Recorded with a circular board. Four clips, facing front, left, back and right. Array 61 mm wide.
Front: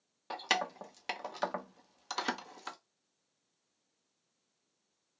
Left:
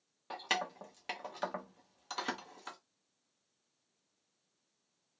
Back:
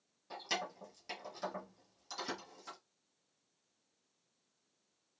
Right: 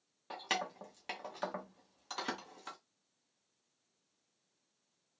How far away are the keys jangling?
About 0.5 m.